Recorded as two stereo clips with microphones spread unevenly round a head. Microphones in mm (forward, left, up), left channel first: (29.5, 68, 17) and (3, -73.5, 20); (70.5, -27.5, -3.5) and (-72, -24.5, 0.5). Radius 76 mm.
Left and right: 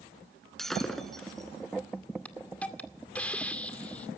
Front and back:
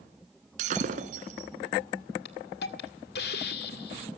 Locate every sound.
0.6 s breaking glass: 170° left, 1.9 m
2.2 s a hiss: straight ahead, 2.0 m